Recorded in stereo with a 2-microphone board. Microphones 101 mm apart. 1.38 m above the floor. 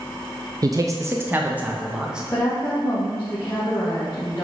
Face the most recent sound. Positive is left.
turn(degrees=20)  # may be behind; listen again after turning